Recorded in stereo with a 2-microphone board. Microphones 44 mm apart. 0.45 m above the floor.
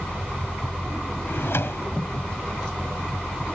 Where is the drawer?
65° left (ahead or behind).